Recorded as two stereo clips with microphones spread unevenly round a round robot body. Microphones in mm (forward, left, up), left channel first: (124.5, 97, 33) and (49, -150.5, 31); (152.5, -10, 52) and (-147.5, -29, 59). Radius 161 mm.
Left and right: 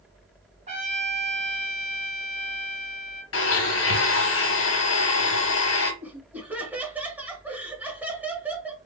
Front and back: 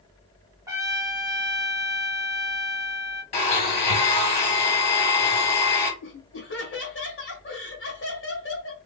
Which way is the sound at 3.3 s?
70° left.